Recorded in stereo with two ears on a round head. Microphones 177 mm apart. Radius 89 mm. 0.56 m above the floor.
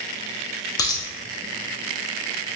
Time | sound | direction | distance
0.8 | a dropped coin | 20° left (ahead or behind) | 0.6 m